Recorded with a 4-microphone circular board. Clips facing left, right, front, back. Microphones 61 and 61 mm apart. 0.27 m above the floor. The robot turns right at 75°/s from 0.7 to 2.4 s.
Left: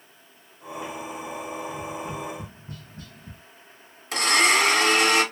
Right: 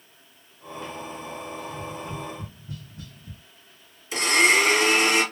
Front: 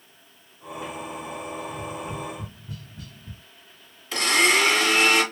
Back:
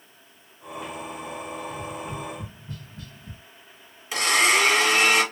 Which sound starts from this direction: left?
A blender, at 4.1 s.